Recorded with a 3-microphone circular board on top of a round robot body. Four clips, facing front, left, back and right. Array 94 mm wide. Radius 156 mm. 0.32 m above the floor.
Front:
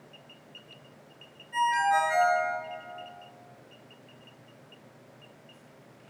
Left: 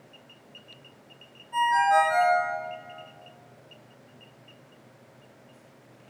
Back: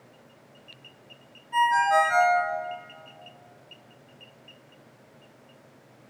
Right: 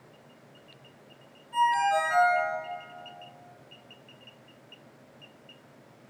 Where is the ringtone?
165° left, 3.5 m.